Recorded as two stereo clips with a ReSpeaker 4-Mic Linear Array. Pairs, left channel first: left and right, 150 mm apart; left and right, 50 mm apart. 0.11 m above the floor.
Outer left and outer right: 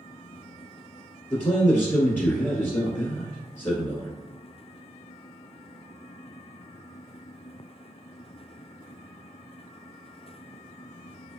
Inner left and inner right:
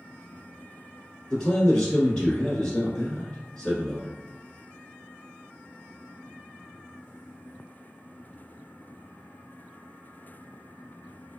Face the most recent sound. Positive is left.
turn(degrees=15)  # may be behind; listen again after turning